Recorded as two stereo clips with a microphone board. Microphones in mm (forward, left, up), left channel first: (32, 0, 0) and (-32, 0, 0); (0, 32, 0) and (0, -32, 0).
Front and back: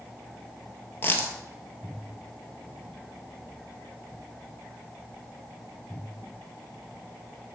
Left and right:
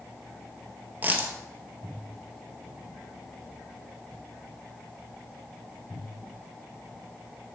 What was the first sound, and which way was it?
A dropped coin, 45° right.